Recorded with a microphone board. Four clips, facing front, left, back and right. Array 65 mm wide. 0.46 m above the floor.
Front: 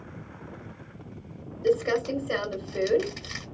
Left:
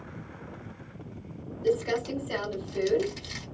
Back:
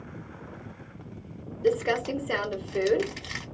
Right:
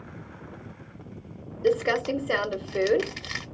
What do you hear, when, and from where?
1.6 s crumpling: 105° right, 1.1 m